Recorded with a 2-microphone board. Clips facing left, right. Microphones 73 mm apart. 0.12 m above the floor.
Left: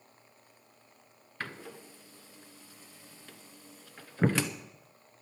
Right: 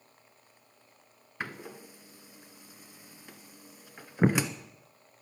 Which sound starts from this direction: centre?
A door slam, at 1.4 s.